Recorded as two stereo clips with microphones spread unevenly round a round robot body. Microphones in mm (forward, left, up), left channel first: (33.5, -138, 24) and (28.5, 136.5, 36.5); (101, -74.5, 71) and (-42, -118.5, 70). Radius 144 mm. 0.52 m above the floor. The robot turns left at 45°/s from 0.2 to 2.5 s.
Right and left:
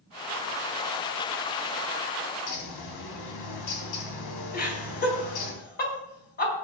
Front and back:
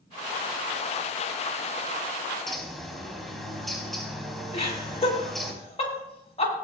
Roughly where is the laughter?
Ahead right.